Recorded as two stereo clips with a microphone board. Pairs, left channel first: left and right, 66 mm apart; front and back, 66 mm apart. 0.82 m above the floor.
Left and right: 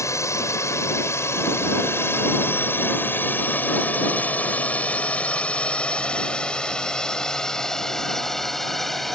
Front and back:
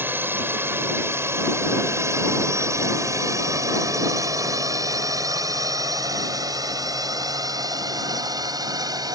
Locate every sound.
0.0 s a drone: 125° left; by 9.1 s 175° left